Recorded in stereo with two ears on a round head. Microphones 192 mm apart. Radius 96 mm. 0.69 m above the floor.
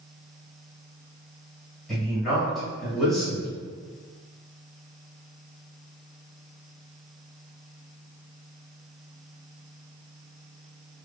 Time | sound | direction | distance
1.9 | a man speaking | centre (ahead or behind) | 1.6 m